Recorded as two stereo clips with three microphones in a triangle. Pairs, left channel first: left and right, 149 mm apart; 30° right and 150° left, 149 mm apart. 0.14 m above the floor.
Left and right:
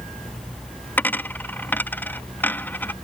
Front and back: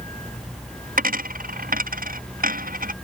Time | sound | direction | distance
1.0 | a dropped coin | 165° left | ?